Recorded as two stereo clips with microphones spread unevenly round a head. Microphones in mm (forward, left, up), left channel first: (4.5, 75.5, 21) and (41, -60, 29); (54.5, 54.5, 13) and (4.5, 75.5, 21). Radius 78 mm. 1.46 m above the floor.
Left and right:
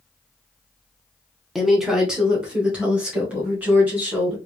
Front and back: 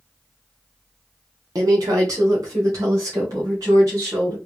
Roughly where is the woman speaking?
Behind.